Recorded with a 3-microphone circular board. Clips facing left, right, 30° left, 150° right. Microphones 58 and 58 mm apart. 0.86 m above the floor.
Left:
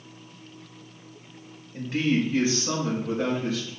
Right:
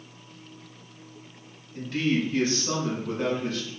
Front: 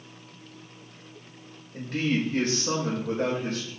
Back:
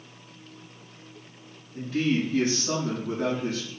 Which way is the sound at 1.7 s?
25° left.